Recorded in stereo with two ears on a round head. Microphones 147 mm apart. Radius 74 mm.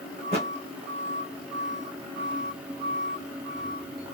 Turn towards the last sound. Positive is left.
turn(degrees=-35)  # may be behind; listen again after turning